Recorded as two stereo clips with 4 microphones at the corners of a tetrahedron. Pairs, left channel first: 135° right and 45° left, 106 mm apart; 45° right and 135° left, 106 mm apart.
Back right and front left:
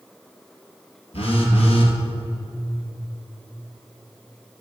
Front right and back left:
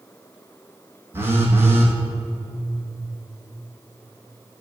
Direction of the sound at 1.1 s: 160° right.